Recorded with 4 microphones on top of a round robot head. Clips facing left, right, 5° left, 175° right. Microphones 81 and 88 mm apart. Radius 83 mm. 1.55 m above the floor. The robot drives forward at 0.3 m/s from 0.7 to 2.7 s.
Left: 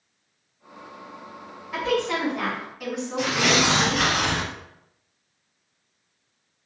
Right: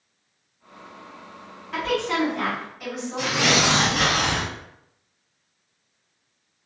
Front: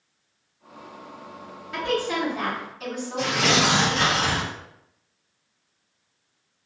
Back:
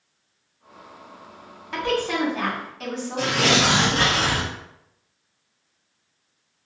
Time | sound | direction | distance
1.7 | a woman speaking | 175° left | 1.4 m
3.2 | tearing paper | 165° right | 0.5 m